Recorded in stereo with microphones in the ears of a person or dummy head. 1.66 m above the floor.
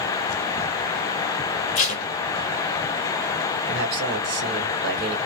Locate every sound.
1.8 s tape being pulled: 35° left (ahead or behind), 0.6 m
3.7 s a man speaking: 55° right (ahead or behind), 1.1 m